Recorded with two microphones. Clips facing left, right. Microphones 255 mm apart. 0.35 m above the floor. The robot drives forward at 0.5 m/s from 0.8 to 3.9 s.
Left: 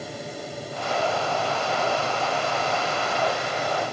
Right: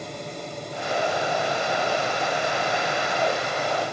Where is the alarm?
I don't hear an alarm.